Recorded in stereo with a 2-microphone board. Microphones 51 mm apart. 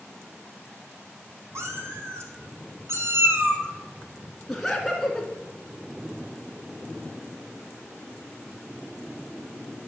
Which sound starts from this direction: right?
A cat meowing, at 1.6 s.